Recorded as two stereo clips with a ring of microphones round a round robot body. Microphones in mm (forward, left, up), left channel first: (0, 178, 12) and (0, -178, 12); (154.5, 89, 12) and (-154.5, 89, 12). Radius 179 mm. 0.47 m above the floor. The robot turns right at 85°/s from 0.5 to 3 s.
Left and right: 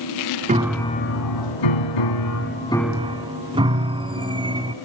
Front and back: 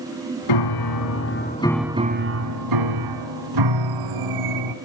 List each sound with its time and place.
0.5 s a piano: 20° right, 2.0 m; by 4.8 s 165° right, 2.0 m